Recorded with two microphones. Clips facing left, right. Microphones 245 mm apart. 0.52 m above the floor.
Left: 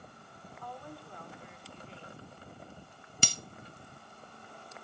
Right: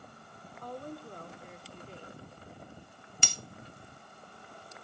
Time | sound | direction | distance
0.6 | a woman speaking | 40° right (ahead or behind) | 1.1 m
3.2 | breaking glass | 40° left (ahead or behind) | 0.6 m